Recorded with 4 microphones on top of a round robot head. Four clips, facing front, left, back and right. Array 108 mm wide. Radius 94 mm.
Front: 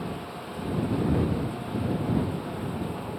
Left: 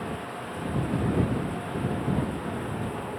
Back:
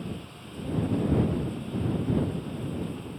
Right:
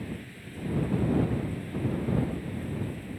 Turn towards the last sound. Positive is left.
turn(degrees=60)